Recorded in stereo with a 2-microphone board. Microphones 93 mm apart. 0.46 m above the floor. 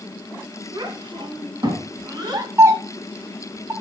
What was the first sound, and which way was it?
A child speaking, 55° right (ahead or behind).